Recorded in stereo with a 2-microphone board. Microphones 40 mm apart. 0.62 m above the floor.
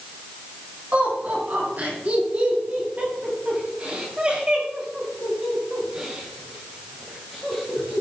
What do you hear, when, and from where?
0.9 s laughter: 50° right (ahead or behind), 5 m; by 8.0 s centre (ahead or behind), 3.5 m